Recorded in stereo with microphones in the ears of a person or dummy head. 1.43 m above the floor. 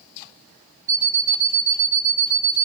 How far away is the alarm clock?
About 0.6 m.